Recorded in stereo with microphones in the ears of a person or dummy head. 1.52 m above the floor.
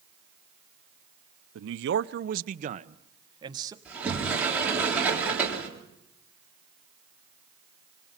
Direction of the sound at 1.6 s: 80° right.